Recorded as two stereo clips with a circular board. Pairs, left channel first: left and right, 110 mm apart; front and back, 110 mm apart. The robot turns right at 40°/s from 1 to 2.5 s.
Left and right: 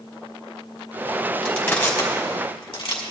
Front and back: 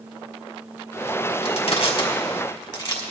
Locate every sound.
1.4 s crushing: 5° left, 2.5 m; by 3.0 s 45° left, 2.5 m